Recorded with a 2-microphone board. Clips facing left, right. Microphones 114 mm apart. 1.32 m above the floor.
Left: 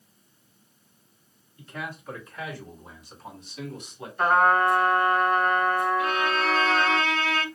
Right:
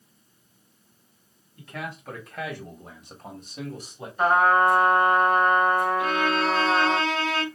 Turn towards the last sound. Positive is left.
turn(degrees=-30)  # may be behind; listen again after turning